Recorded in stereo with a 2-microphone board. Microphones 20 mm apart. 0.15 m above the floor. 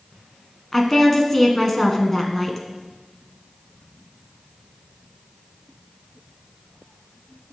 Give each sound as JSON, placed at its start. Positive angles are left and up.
{"t": 0.7, "sound": "a woman speaking", "side_deg": 20, "distance_m": 1.1}